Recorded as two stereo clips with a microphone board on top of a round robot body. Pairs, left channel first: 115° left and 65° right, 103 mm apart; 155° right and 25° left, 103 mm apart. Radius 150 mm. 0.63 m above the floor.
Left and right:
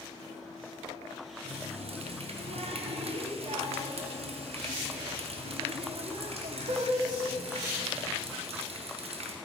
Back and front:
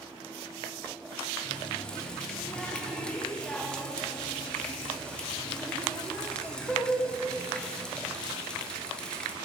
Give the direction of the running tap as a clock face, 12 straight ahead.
3 o'clock.